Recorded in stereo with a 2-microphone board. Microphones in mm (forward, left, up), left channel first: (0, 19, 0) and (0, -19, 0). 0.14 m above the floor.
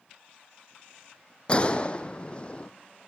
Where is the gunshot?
30° left (ahead or behind), 1.3 m.